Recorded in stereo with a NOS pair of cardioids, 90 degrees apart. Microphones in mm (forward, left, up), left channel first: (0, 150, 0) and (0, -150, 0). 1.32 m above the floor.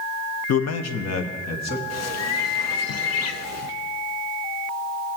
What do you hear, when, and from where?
0.5 s a man speaking: 55° left, 0.7 m; by 1.8 s 60° left, 2 m
1.9 s a bird: 55° left, 0.7 m